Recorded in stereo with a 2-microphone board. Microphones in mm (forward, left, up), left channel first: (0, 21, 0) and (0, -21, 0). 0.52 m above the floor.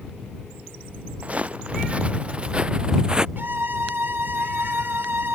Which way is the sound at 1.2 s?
30° right (ahead or behind).